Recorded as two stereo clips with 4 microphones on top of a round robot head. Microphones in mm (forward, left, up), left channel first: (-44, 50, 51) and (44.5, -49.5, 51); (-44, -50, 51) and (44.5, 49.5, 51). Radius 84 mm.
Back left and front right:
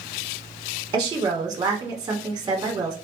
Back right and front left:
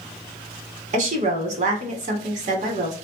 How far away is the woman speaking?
About 1.0 m.